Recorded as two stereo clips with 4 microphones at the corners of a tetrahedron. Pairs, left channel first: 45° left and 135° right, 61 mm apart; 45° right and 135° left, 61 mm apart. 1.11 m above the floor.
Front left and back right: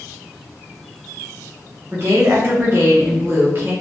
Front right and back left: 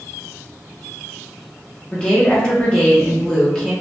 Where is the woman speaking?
110° right, 0.9 m.